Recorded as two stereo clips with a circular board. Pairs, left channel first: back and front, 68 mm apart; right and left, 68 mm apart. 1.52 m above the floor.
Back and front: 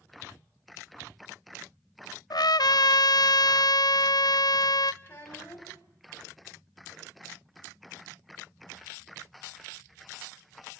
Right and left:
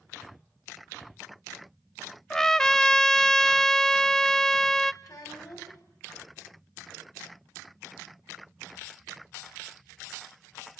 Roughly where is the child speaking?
Behind right.